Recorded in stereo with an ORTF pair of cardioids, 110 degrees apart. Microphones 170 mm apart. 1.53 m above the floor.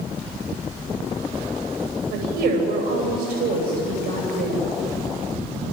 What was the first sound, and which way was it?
A woman speaking, 70° right.